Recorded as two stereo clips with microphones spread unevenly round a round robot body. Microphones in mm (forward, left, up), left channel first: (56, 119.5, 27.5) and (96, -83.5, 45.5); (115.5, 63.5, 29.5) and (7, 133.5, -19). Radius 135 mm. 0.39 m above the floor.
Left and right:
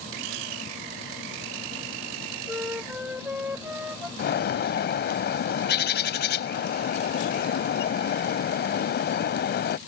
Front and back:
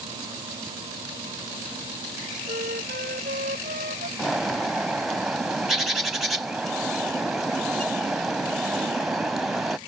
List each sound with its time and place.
2.5 s a flute: 165° right
4.2 s a bird: 65° left